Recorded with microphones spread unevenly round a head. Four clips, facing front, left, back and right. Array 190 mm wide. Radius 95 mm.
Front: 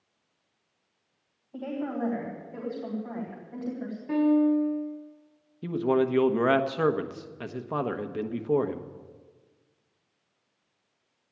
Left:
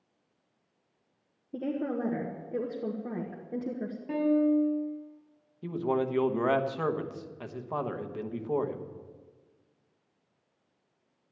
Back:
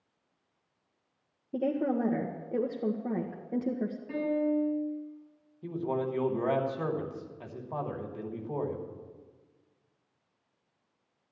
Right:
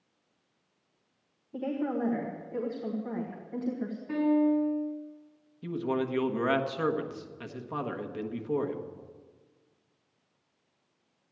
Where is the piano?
55° left, 5 m.